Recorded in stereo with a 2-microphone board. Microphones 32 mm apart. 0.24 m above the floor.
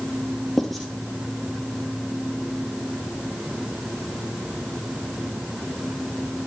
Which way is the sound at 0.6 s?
Centre (ahead or behind).